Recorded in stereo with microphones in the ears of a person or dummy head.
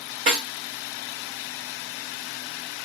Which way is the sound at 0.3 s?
40° right (ahead or behind).